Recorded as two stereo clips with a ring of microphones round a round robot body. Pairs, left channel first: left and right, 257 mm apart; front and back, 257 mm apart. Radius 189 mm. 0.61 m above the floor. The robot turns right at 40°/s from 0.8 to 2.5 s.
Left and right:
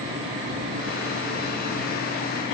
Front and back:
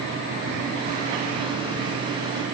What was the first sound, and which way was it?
Only background noise.